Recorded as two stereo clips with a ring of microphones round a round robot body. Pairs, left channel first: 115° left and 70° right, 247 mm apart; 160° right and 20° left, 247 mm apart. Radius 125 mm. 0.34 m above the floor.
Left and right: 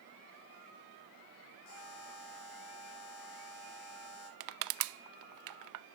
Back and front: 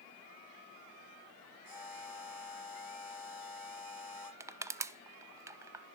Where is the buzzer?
105° left, 8.5 m.